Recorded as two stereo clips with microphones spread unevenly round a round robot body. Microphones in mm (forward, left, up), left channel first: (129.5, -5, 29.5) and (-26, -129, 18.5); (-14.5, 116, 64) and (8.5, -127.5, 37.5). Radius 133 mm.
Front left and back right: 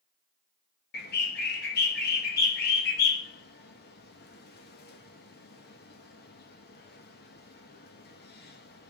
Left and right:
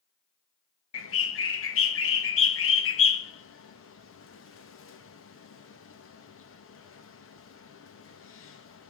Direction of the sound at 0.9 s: 70° left.